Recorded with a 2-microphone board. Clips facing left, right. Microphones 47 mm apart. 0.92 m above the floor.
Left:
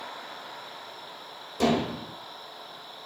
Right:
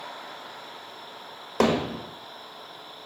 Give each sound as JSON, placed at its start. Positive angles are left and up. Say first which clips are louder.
{"t": 1.6, "sound": "hammering", "louder": "right 2 dB", "side_deg": -65, "distance_m": 1.4}